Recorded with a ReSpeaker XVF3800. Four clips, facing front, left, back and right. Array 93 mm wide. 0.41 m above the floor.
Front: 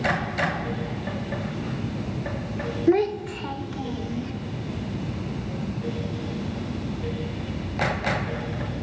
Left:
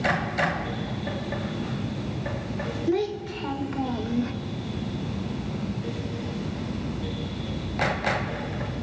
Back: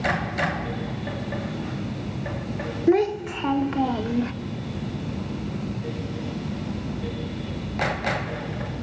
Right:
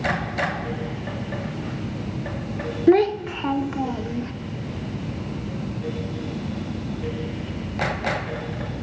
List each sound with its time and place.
2.9 s a child speaking: 90° right, 0.7 m; by 4.3 s 175° left, 0.8 m